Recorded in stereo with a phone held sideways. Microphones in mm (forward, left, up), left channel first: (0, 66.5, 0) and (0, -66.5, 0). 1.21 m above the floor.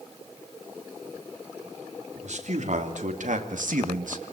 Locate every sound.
2.1 s a man speaking: 65° right (ahead or behind), 3.5 m; by 4.3 s 70° right (ahead or behind), 1.4 m